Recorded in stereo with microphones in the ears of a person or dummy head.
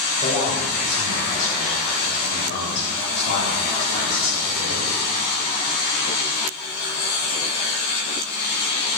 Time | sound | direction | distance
0.2 | a man speaking | 25° left (ahead or behind) | 3 m